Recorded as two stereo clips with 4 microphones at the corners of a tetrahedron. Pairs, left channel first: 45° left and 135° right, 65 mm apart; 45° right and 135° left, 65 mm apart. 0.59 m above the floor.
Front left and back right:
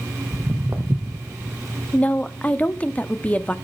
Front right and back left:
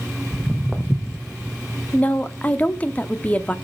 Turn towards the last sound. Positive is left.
turn(degrees=-5)